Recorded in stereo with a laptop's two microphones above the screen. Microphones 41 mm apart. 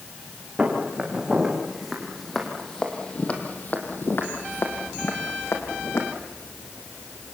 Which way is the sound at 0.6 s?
15° right (ahead or behind).